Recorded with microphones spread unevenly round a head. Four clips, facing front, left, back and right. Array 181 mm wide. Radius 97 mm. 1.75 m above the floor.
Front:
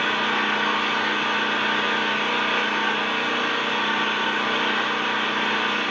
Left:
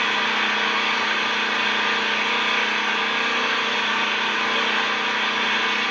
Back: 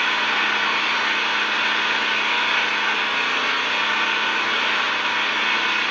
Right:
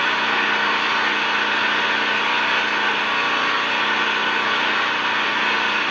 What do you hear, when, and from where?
0.0 s an engine running: 45° right, 5 m